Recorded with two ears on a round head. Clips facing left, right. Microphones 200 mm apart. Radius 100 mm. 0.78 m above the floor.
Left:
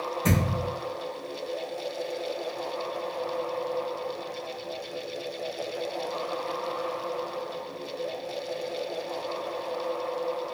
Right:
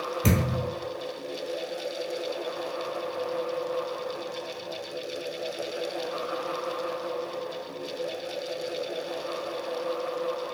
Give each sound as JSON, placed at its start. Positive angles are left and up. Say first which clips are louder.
{"t": 0.2, "sound": "a thud", "louder": "right 1 dB", "side_deg": -45, "distance_m": 1.0}